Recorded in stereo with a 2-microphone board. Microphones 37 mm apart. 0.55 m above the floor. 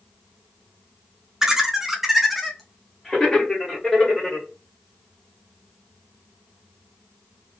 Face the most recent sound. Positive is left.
turn(degrees=20)  # may be behind; listen again after turning